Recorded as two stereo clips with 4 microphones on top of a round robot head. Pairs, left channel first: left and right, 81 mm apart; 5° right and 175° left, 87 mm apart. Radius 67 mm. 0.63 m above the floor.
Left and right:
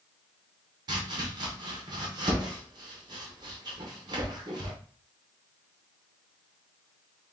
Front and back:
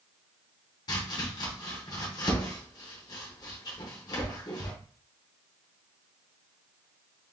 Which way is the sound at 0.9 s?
50° right.